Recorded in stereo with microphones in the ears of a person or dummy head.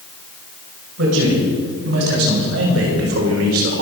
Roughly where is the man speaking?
Right.